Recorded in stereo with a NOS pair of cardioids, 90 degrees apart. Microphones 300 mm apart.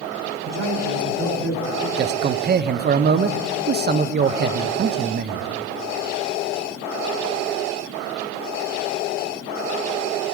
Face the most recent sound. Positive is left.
turn(degrees=-35)